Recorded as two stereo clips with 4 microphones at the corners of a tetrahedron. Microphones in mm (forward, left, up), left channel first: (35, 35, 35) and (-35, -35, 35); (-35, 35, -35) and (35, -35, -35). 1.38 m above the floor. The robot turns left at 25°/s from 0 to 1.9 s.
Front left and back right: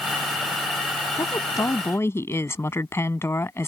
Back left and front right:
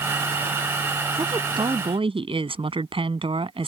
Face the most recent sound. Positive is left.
turn(degrees=-20)